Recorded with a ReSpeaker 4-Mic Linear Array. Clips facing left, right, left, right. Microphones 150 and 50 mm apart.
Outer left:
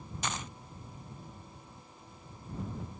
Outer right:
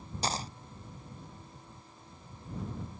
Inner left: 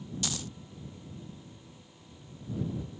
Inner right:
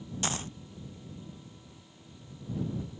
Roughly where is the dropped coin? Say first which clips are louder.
Outer right 4 dB, inner right 5 dB; right.